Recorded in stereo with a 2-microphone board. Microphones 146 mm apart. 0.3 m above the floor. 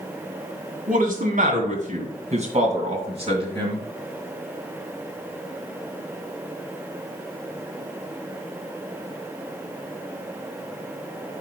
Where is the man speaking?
60° right (ahead or behind), 2.5 m; by 3.8 s 35° right (ahead or behind), 3.5 m.